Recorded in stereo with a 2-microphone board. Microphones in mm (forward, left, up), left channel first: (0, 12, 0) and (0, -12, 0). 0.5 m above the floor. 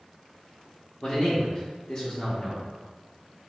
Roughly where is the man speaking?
Left.